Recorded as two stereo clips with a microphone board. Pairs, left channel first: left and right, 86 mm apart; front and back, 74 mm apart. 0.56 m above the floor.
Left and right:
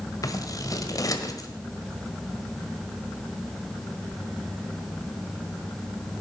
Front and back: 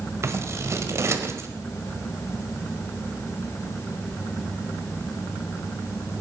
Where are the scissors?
135° left, 1.5 m.